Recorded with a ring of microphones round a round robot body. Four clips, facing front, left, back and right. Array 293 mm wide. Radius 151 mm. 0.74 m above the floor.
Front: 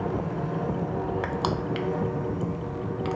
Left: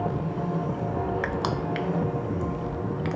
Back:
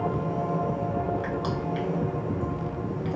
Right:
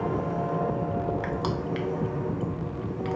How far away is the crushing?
About 0.5 m.